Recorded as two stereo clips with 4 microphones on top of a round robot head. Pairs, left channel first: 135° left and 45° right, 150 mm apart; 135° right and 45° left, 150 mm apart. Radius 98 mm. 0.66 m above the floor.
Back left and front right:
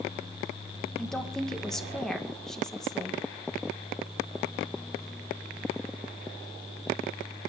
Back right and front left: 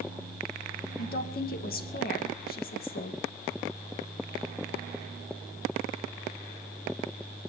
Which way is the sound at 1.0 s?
140° right.